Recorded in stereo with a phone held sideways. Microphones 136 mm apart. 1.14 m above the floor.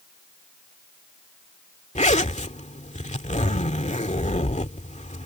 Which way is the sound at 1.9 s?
60° left (ahead or behind).